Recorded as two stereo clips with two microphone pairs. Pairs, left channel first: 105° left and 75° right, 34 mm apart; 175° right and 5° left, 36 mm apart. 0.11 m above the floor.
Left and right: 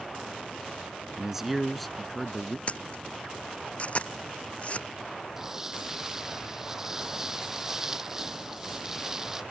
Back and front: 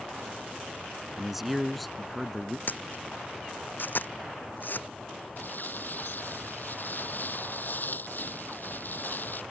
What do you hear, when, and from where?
1.2 s a man speaking: 60° right; by 2.6 s 115° left
2.7 s a camera shutter: 150° left
5.4 s crumpling: 150° right